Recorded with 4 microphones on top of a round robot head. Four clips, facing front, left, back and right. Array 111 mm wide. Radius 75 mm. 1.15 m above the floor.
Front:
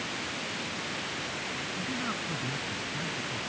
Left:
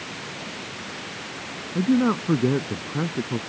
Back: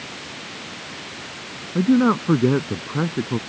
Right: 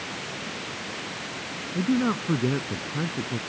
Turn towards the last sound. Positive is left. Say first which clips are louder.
# left 4 dB, back 21 dB
turn(degrees=160)